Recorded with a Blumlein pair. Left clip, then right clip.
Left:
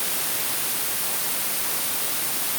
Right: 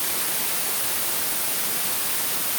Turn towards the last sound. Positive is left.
No sound to turn to.